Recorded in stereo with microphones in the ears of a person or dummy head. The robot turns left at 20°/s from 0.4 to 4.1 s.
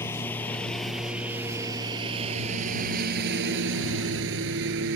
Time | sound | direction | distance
0.0 | a lawn mower | 15° left (ahead or behind) | ?